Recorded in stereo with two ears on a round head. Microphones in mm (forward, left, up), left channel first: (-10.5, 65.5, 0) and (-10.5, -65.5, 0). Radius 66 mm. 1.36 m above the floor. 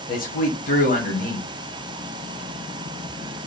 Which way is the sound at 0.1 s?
60° left (ahead or behind).